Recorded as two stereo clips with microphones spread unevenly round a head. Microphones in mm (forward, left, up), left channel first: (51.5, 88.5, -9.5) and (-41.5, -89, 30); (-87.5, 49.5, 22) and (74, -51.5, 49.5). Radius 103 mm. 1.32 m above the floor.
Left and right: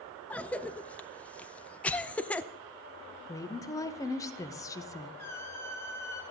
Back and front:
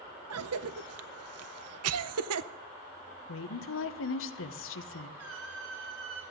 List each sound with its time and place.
0.3 s a cough: 25° right, 0.7 m
3.3 s a woman speaking: 135° left, 1.0 m
5.2 s a squeak: 20° right, 4 m